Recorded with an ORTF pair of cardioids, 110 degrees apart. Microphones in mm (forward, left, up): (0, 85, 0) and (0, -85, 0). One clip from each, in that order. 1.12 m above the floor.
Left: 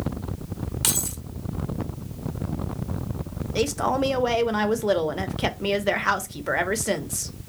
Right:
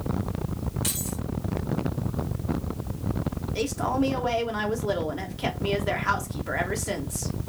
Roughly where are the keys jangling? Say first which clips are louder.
Left 7 dB; ahead left.